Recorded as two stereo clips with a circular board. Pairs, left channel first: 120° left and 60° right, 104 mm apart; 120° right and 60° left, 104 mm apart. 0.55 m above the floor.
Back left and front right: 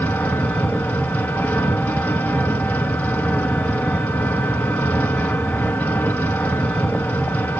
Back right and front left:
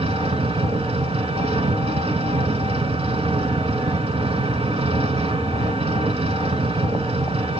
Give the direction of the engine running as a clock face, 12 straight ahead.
11 o'clock.